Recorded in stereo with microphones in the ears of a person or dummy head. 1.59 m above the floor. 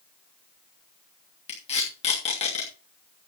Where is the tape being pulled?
40° left (ahead or behind), 2.5 m.